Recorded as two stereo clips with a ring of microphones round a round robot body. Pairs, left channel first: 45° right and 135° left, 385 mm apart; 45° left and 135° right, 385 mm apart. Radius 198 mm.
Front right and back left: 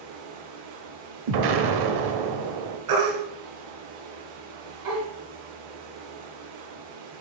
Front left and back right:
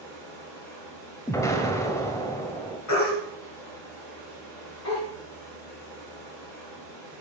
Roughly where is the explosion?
Behind left.